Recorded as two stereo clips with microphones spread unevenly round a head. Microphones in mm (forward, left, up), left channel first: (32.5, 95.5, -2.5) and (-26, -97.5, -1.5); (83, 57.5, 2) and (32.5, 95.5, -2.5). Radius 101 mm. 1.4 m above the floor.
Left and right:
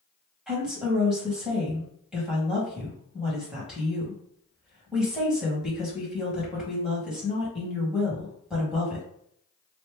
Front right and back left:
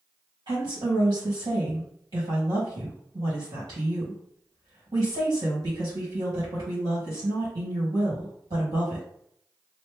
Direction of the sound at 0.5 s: 165° left.